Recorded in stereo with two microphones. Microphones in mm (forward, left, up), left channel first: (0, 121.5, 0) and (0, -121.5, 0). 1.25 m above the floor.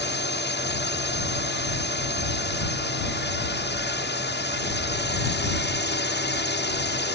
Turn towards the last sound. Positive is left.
turn(degrees=45)  # may be behind; listen again after turning